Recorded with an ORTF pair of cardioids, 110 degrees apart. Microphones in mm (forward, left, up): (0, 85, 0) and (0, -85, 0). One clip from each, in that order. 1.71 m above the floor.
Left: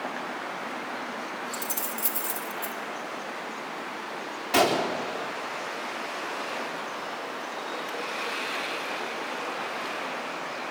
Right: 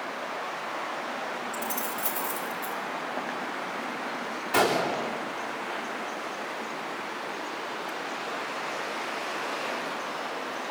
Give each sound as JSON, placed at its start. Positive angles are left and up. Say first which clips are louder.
{"t": 1.5, "sound": "keys jangling", "louder": "right 1 dB", "azimuth_deg": 50, "distance_m": 3.5}
{"t": 4.5, "sound": "a gunshot", "louder": "left 1 dB", "azimuth_deg": 40, "distance_m": 3.5}